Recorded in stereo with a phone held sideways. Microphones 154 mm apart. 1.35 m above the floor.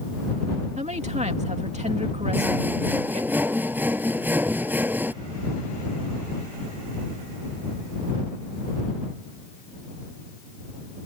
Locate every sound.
0.8 s a woman speaking: 50° right (ahead or behind)
2.3 s sawing: 10° right (ahead or behind)